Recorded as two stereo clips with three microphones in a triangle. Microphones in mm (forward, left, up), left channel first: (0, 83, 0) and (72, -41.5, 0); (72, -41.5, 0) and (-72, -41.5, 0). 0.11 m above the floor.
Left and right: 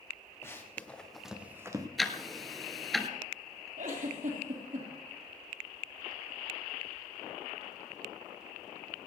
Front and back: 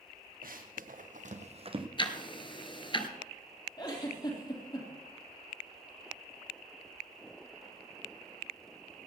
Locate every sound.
0.4 s running footsteps: 165° right, 2.5 m; by 1.9 s 120° right, 1.6 m
2.0 s ticking: 30° left, 1.0 m
3.8 s a giggle: 55° right, 3.5 m